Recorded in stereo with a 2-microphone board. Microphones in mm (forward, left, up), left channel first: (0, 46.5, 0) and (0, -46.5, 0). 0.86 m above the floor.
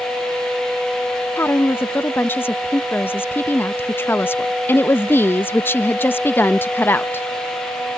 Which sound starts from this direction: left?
A woman speaking, at 1.4 s.